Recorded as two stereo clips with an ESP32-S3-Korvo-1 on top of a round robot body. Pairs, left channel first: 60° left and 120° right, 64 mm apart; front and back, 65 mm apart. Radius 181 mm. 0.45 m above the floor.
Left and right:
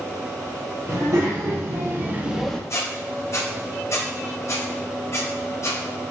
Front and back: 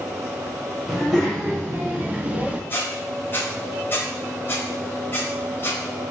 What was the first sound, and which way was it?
A child speaking, 105° right.